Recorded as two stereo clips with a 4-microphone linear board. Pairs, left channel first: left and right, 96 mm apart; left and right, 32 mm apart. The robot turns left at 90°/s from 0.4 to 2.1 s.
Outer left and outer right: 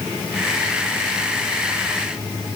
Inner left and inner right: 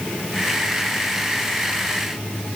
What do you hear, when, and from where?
Only background noise.